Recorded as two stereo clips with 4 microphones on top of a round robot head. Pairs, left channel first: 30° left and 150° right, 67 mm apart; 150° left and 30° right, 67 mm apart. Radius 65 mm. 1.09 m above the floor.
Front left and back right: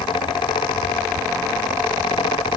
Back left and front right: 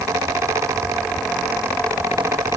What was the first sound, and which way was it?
Only background noise.